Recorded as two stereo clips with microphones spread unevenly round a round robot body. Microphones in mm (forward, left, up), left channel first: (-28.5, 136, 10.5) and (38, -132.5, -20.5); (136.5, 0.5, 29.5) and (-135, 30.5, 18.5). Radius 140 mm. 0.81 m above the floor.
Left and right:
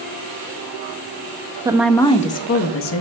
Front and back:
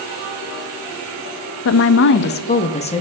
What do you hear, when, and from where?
1.6 s a woman speaking: 10° right, 0.5 m; by 3.0 s 65° left, 0.8 m